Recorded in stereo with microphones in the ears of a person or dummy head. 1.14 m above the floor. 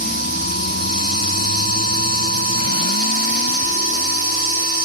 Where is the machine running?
40° right (ahead or behind), 1.6 m.